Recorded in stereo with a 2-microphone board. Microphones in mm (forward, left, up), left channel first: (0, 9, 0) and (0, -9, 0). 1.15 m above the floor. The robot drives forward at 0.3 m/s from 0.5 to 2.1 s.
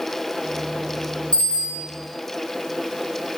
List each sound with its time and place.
1.3 s a bicycle bell: 65° left (ahead or behind), 9.5 m